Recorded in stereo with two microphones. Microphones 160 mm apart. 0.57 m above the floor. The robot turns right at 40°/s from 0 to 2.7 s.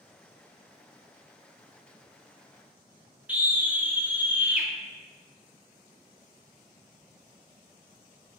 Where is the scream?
10° right (ahead or behind), 0.7 m.